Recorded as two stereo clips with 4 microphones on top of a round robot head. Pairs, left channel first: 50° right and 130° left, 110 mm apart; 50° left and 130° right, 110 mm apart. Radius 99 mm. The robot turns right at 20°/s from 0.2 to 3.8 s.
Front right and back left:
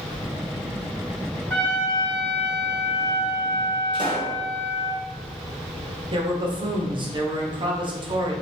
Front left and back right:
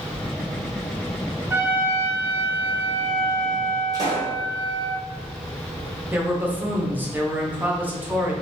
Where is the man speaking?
160° left, 1.1 m.